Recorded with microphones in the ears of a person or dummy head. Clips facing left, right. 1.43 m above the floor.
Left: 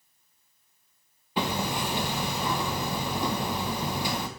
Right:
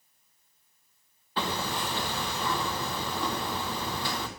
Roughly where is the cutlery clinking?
No cutlery clinking in this recording.